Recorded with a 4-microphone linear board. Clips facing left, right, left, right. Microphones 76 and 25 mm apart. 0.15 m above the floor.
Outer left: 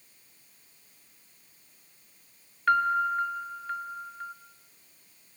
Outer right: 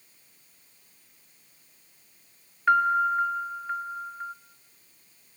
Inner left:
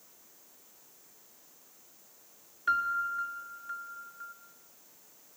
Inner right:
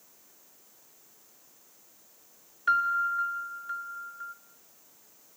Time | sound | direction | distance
2.7 | a piano | 10° right (ahead or behind) | 0.7 m